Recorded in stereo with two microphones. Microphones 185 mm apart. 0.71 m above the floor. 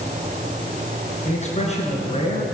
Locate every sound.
1.2 s a man speaking: 35° left (ahead or behind), 8 m